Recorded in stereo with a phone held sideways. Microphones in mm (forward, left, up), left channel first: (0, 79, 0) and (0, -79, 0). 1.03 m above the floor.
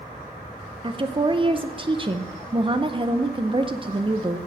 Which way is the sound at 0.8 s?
35° right (ahead or behind).